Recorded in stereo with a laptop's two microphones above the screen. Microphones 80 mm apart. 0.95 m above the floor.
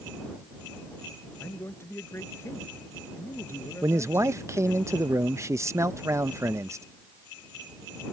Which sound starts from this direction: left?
A man speaking, at 1.4 s.